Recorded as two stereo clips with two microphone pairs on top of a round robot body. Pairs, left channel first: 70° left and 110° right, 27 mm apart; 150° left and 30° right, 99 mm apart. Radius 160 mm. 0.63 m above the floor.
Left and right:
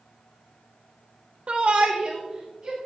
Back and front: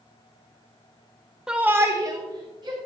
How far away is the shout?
About 0.6 m.